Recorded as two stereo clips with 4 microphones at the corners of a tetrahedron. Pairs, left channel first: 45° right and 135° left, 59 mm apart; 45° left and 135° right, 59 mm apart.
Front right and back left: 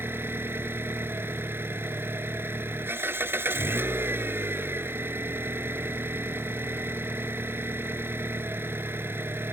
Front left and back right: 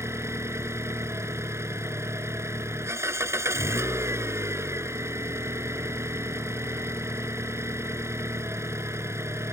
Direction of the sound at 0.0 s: 175° right.